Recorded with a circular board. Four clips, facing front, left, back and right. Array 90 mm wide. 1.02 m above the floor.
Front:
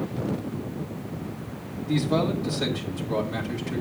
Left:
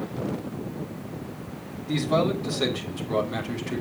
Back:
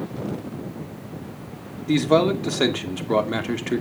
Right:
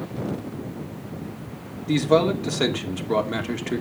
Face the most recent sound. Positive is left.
turn(degrees=-155)